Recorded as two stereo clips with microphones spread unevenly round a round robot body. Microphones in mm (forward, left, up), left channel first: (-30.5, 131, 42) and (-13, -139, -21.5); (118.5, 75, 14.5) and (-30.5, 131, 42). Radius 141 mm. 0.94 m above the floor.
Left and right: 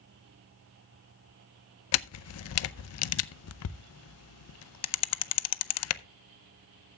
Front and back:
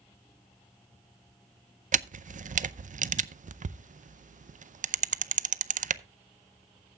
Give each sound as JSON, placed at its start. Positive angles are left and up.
{"t": 1.9, "sound": "a camera shutter", "azimuth_deg": 125, "distance_m": 0.6}